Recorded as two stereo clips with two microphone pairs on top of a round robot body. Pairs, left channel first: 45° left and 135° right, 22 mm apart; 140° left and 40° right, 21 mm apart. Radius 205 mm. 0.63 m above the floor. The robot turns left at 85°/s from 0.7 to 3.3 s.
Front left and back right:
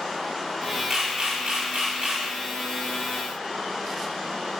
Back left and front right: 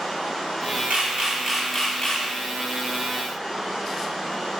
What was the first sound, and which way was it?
A camera shutter, 70° right.